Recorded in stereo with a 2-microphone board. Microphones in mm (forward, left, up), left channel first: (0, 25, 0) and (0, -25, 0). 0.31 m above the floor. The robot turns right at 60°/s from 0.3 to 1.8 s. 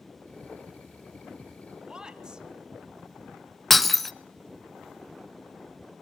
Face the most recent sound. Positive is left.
turn(degrees=0)  # may be behind; listen again after turning